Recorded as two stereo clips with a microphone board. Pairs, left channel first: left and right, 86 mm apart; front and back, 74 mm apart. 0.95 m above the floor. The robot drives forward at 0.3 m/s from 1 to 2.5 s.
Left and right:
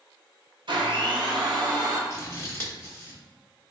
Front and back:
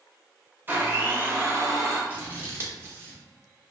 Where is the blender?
115° right, 0.5 m; by 2.0 s 135° right, 0.7 m.